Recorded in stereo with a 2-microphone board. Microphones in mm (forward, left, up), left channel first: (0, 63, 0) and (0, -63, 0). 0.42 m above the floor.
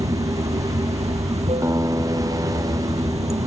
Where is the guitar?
25° right (ahead or behind).